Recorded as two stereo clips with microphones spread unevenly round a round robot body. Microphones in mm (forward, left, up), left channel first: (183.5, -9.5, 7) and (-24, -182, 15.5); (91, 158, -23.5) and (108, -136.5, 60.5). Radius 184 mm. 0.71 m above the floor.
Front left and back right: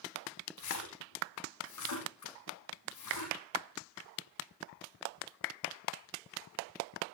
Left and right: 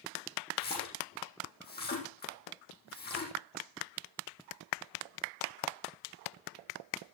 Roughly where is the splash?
Ahead left.